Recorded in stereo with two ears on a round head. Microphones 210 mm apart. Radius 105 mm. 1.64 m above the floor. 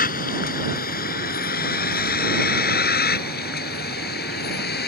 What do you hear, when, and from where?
0.0 s a vehicle: 40° left (ahead or behind); by 4.9 s 45° left (ahead or behind)